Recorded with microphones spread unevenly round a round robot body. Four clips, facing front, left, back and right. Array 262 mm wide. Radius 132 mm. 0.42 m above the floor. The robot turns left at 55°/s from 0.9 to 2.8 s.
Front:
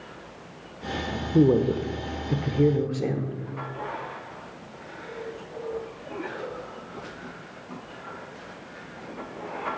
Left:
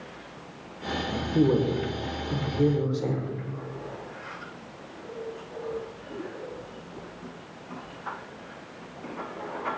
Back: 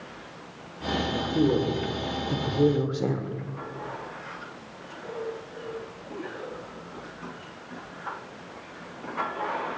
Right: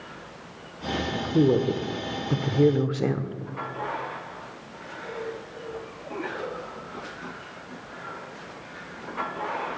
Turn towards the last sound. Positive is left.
turn(degrees=-105)